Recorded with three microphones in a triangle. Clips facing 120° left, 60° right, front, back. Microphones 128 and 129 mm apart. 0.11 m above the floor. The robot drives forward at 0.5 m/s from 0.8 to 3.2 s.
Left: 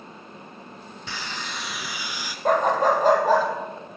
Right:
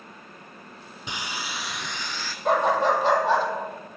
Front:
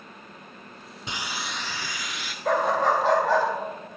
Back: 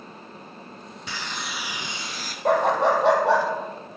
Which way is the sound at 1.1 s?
20° right.